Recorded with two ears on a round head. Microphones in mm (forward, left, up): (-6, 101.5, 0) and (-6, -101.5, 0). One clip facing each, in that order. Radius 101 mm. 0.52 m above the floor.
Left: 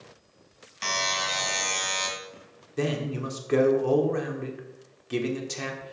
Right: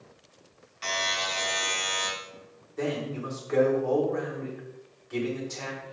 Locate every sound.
0.8 s a buzzer: 65° left (ahead or behind), 1.7 m
2.8 s a man speaking: 45° left (ahead or behind), 1.2 m